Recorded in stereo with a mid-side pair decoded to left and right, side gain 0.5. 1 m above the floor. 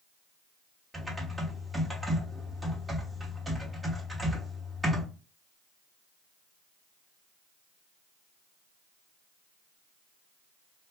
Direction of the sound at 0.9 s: 10° right.